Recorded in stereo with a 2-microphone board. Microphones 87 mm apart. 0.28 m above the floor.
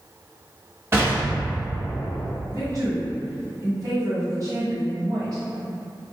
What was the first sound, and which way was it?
An explosion, 35° right (ahead or behind).